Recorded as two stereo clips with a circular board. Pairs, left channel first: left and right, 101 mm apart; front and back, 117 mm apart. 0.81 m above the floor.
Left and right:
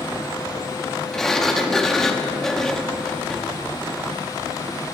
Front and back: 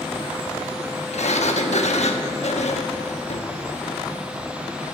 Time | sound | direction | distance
1.1 | a sliding door | 5° left | 0.9 m